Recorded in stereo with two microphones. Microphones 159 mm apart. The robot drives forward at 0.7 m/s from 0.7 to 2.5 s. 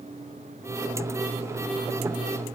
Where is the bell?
No bell in this recording.